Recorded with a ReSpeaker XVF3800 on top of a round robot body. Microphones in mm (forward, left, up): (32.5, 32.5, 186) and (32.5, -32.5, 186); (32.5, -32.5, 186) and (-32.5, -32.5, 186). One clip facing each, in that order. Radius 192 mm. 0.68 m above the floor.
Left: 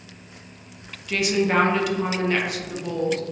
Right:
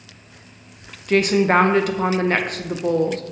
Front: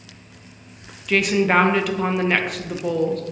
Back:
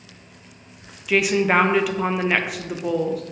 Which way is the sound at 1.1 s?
95° right.